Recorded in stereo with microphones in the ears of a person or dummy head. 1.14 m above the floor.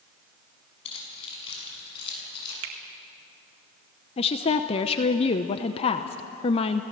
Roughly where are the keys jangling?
Left.